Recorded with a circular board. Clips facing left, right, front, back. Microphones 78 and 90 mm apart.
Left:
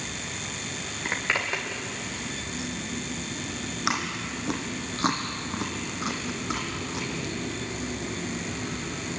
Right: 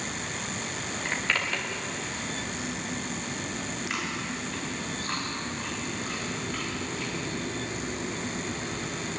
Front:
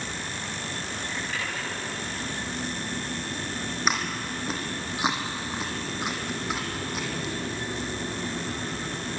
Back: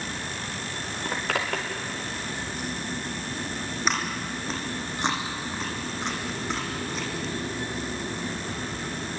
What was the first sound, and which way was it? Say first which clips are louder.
A zipper: left 2 dB, back 7 dB; 160° left.